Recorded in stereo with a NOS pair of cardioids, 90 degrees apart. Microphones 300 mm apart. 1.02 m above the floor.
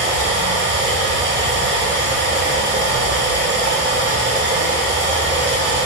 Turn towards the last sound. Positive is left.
turn(degrees=-45)